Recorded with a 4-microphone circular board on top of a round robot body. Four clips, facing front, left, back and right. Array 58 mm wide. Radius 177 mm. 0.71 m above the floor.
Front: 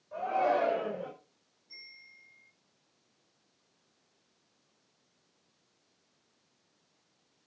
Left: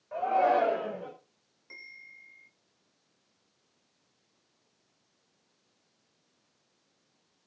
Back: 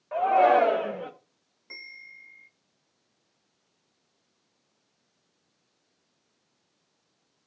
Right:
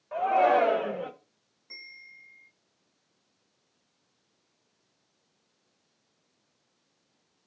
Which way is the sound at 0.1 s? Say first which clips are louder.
Right 3 dB, back 9 dB; 160° right.